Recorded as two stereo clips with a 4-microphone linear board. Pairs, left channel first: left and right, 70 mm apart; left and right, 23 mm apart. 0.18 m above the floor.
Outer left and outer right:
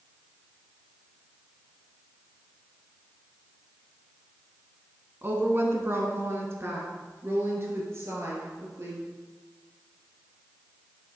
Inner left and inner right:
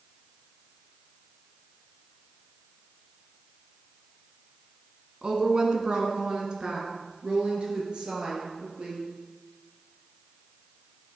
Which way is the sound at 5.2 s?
35° right (ahead or behind).